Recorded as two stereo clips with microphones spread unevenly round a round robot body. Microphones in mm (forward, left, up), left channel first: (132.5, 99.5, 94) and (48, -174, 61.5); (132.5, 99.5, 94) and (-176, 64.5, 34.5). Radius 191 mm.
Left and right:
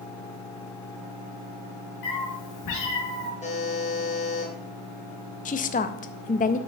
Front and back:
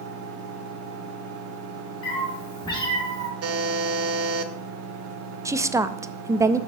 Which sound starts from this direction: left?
A cat meowing, at 2.0 s.